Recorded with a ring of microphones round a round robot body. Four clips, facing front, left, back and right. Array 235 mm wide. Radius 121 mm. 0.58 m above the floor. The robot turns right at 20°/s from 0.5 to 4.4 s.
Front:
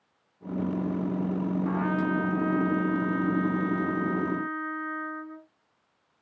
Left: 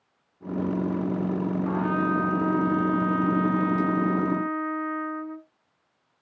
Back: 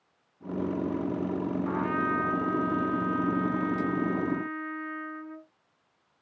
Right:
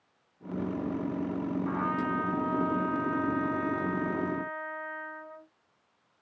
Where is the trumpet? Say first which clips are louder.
Left 7 dB, front 1 dB; 50° left, 1.3 m; by 5.5 s 105° left, 1.3 m.